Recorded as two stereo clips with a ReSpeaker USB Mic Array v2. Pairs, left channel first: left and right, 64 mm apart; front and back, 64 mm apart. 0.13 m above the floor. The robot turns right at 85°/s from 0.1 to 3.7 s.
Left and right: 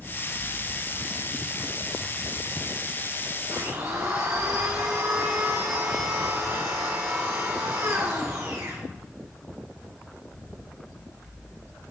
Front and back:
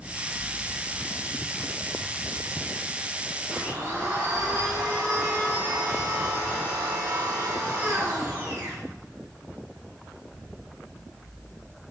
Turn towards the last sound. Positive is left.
turn(degrees=-115)